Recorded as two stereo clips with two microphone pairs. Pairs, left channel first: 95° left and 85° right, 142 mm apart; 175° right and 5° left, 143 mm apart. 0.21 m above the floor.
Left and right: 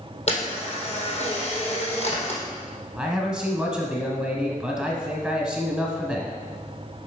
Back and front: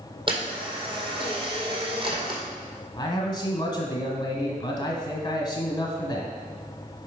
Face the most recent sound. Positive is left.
turn(degrees=-165)